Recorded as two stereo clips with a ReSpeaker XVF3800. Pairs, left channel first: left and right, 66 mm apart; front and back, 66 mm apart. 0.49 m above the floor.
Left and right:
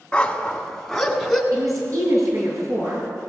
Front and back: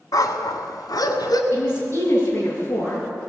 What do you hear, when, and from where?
0.1 s a dog barking: 15° left, 1.4 m; by 1.4 s 5° right, 1.9 m
1.5 s a woman speaking: 50° right, 7 m